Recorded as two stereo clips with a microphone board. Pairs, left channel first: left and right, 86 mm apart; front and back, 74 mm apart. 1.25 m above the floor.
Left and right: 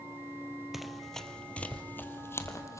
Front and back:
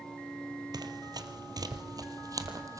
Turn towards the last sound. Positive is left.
turn(degrees=140)